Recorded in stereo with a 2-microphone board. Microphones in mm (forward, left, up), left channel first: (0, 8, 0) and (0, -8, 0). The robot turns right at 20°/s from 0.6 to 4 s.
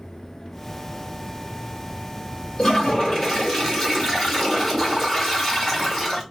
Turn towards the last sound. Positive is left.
turn(degrees=20)  # may be behind; listen again after turning